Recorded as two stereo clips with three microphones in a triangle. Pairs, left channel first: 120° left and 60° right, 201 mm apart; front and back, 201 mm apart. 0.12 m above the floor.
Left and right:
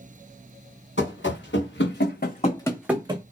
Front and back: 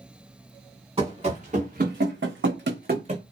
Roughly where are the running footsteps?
Behind left.